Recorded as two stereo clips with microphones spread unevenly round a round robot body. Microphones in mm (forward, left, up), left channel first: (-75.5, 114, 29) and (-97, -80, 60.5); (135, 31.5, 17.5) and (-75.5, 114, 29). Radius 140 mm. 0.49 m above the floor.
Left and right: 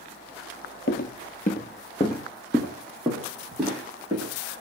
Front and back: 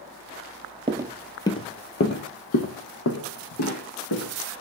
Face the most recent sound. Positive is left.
turn(degrees=-15)